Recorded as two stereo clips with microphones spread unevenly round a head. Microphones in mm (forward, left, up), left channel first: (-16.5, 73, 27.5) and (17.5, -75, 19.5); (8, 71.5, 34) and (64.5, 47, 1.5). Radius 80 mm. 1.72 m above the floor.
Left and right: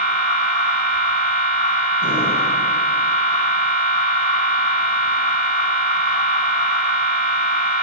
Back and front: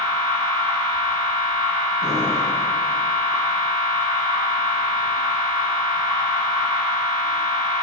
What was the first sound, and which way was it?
A machine running, 95° right.